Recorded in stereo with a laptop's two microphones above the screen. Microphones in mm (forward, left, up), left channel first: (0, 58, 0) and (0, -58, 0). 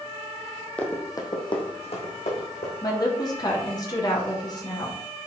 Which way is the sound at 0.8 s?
10° left (ahead or behind).